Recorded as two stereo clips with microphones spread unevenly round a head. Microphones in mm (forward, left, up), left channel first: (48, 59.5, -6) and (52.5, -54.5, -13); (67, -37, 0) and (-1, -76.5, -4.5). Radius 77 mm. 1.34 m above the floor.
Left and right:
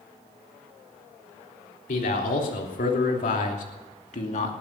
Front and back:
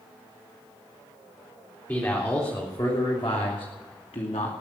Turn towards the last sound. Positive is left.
turn(degrees=70)